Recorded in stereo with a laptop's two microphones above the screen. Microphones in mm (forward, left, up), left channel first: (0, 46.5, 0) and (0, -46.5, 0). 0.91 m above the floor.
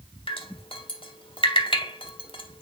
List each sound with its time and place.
0.3 s dripping: 70° left (ahead or behind), 1.4 m